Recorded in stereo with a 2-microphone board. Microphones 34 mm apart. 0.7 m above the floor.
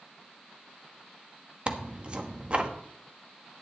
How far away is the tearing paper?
About 1.1 m.